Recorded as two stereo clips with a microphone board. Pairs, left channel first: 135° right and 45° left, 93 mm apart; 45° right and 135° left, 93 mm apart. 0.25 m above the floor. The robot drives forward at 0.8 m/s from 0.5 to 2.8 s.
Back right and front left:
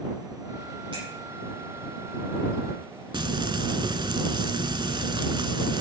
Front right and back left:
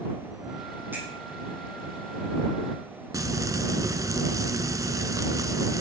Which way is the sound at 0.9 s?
65° left.